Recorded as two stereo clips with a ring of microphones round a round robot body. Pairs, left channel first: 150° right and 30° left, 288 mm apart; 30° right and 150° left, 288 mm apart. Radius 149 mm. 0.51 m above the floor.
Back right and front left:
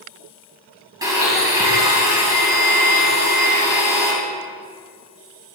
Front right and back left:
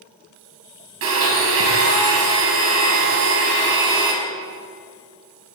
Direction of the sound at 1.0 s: 110° left.